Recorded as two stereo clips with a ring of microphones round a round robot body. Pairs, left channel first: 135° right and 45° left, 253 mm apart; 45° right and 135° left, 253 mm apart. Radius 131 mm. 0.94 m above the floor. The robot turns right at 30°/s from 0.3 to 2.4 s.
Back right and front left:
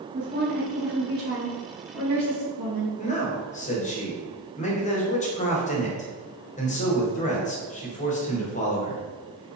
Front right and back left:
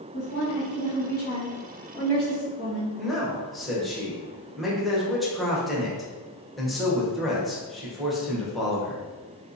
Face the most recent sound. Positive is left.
turn(degrees=-135)